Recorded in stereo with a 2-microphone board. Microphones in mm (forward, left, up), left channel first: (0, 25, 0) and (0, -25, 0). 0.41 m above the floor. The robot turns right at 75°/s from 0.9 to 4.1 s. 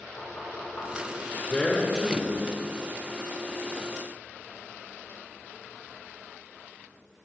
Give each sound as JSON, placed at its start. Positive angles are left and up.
{"t": 0.2, "sound": "knocking", "side_deg": 65, "distance_m": 3.5}
{"t": 1.5, "sound": "a man speaking", "side_deg": 25, "distance_m": 1.2}